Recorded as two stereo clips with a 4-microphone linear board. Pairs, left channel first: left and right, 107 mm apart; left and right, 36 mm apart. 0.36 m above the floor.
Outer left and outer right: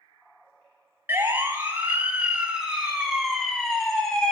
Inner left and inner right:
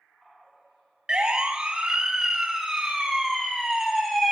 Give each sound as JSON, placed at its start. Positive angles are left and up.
{"t": 1.1, "sound": "a siren", "side_deg": -25, "distance_m": 2.5}